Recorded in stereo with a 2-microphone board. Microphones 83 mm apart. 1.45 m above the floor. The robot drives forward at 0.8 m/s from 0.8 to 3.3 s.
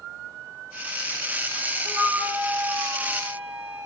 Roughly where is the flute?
Right.